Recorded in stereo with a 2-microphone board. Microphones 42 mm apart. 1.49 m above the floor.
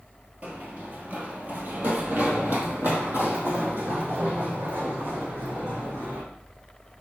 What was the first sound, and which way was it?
Running footsteps, 35° right (ahead or behind).